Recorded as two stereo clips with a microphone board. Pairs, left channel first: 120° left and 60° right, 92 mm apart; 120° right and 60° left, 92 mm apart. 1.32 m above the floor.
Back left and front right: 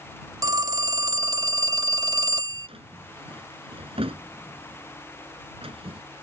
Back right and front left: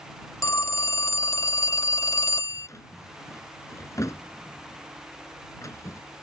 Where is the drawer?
65° right.